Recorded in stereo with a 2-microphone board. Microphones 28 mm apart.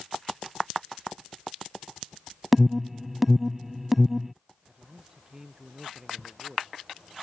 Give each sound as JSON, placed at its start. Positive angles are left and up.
{"t": 2.5, "sound": "an alarm", "side_deg": -10}
{"t": 4.7, "sound": "a man speaking", "side_deg": -20}